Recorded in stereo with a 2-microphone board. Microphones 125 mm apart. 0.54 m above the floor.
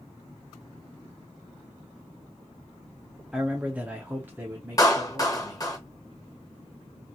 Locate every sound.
3.3 s a man speaking: 5° right (ahead or behind), 0.7 m; by 5.7 s 15° right (ahead or behind), 1.3 m
4.8 s a clap: 30° left (ahead or behind), 1.2 m